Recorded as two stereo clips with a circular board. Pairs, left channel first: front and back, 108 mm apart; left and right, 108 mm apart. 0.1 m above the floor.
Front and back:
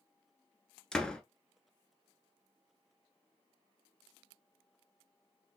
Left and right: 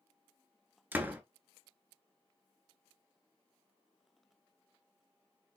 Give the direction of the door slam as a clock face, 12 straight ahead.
2 o'clock.